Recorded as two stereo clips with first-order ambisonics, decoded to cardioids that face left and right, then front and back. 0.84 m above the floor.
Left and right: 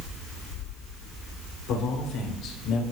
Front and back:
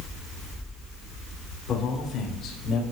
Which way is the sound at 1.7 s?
65° left.